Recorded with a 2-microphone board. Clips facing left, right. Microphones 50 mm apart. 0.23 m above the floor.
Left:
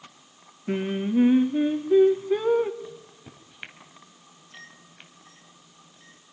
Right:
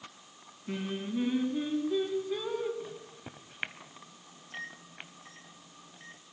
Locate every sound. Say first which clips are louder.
0.7 s singing: left 9 dB; 35° left (ahead or behind), 1.4 m
2.8 s a microwave: left 2 dB; 25° right (ahead or behind), 1.2 m